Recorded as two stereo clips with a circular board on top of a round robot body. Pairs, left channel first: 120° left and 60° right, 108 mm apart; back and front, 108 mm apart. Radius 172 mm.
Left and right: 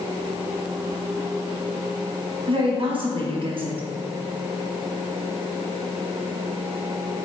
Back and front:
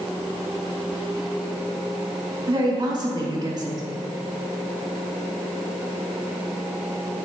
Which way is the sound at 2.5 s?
45° right.